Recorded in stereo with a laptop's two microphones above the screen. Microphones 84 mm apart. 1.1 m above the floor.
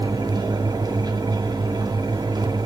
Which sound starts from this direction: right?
A fan, at 0.0 s.